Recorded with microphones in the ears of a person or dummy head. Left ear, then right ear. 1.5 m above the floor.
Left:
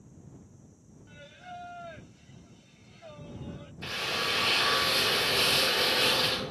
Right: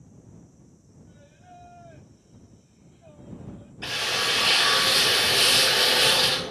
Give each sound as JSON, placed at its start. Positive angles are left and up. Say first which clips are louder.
{"t": 1.1, "sound": "singing", "louder": "left 7 dB", "side_deg": 70}
{"t": 3.8, "sound": "a drill", "louder": "right 5 dB", "side_deg": -15}